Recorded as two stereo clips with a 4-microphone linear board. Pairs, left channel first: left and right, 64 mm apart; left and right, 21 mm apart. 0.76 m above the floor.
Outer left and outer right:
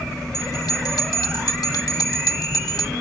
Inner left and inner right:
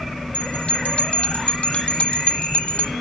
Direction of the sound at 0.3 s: 80° left.